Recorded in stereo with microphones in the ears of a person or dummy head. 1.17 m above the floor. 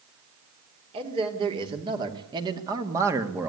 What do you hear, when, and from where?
0.9 s a man speaking: 35° right (ahead or behind), 3.5 m; by 3.5 s 15° right (ahead or behind), 1.8 m